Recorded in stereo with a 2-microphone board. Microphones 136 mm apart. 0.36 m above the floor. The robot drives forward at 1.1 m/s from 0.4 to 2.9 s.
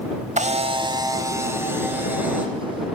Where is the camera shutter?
60° right (ahead or behind), 0.6 m; by 2.5 s 10° right (ahead or behind), 2.5 m.